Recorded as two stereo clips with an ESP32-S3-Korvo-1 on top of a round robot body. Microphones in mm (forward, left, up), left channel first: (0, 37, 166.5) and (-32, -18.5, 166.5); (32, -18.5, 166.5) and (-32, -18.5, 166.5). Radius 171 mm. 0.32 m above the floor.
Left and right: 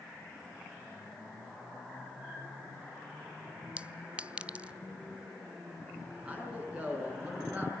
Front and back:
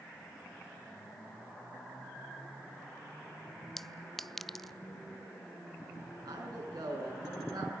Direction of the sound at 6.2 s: 170° left.